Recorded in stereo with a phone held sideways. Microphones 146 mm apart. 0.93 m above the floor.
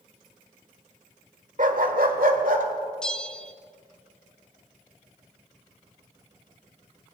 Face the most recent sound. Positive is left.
turn(degrees=5)  # may be behind; listen again after turning